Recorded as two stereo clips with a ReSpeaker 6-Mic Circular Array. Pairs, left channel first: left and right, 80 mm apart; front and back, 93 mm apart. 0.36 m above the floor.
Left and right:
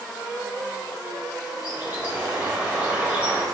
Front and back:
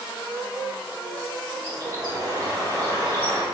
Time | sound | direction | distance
1.6 | a bird | 160° right | 1.3 m